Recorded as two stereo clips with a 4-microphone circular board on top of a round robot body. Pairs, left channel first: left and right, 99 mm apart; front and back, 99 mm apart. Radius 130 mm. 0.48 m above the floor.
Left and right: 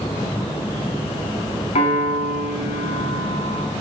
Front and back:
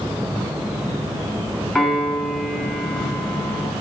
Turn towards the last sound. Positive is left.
turn(degrees=85)